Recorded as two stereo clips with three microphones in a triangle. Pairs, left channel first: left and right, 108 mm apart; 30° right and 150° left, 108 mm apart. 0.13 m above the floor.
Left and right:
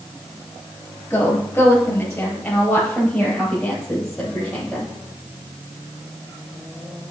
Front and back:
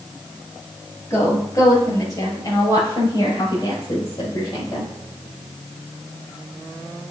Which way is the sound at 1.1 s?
25° left.